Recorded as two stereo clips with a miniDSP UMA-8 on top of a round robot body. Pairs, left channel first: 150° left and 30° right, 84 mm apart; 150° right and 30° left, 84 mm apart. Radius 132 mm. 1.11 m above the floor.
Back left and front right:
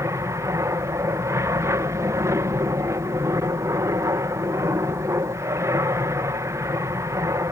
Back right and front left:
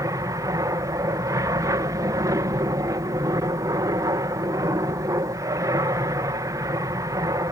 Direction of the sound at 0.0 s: 5° left.